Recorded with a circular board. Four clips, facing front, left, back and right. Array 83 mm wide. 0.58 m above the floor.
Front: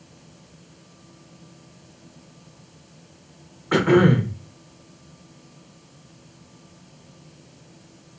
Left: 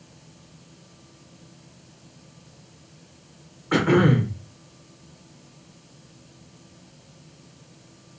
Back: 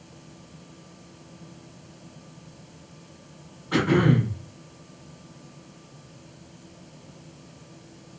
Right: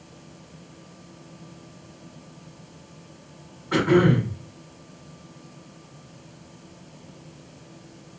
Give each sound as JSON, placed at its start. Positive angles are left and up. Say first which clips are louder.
{"t": 3.7, "sound": "throat clearing", "louder": "even, front 4 dB", "azimuth_deg": 30, "distance_m": 0.7}